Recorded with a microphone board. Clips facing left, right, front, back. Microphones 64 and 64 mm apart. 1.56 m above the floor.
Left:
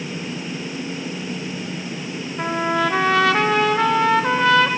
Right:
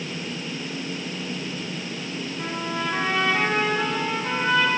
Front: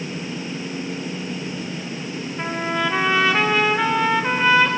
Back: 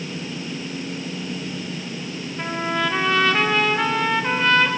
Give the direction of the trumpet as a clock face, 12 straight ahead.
9 o'clock.